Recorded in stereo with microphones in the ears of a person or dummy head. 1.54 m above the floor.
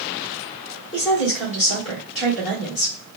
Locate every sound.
0.9 s a woman speaking: 60° left (ahead or behind), 1.1 m